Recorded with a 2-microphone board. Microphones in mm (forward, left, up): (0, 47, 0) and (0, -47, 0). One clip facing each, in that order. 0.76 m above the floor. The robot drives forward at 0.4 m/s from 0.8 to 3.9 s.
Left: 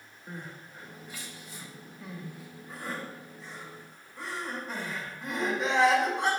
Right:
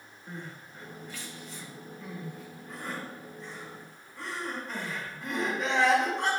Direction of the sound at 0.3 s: 10° left (ahead or behind).